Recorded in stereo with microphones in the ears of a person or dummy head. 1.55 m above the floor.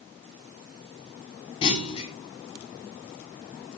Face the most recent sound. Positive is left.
turn(degrees=30)  # may be behind; listen again after turning